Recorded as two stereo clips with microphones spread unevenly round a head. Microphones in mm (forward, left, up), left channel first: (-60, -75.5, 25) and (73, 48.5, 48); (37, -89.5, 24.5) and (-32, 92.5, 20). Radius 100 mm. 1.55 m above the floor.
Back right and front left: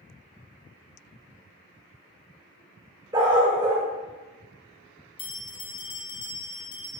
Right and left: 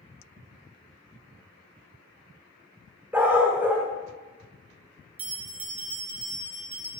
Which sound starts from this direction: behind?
A bell, at 5.2 s.